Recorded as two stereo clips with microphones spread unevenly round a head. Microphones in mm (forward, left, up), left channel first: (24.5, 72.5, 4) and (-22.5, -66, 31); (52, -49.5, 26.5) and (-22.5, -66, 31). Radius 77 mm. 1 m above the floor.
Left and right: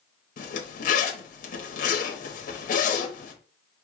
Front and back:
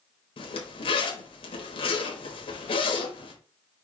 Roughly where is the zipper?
Ahead left.